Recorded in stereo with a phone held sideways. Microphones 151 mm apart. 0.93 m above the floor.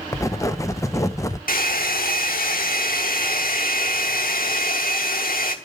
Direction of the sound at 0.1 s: 20° left (ahead or behind).